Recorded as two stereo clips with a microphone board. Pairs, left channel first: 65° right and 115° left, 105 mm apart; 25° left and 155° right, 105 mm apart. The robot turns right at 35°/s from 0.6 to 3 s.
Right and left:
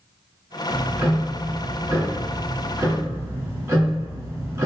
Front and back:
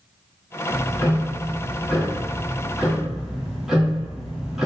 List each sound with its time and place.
0.7 s ticking: 40° left, 1.0 m; by 4.7 s 120° left, 1.0 m